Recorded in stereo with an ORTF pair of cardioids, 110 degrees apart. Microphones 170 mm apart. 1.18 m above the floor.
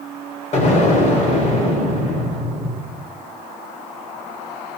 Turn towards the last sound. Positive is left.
turn(degrees=45)